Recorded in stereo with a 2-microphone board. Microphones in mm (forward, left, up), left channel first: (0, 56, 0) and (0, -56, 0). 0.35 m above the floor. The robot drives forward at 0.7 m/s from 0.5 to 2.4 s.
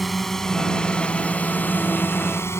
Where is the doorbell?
No doorbell in this recording.